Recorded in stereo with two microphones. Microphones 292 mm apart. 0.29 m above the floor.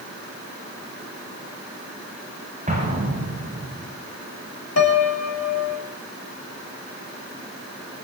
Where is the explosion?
25° right (ahead or behind), 7.5 m.